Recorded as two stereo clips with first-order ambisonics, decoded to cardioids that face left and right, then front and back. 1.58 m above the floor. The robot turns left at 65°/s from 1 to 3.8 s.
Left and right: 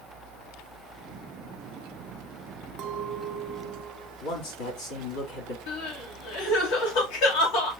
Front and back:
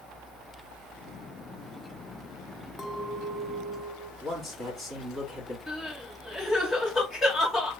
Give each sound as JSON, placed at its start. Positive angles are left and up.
{"t": 2.8, "sound": "a clink", "azimuth_deg": -70, "distance_m": 0.6}
{"t": 4.2, "sound": "a man speaking", "azimuth_deg": 100, "distance_m": 3.0}
{"t": 5.7, "sound": "crying", "azimuth_deg": 75, "distance_m": 1.7}